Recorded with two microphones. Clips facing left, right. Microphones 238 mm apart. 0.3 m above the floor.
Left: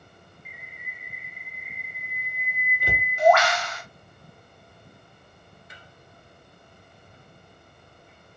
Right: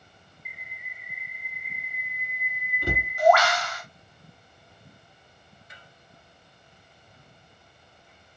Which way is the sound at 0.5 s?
25° left (ahead or behind).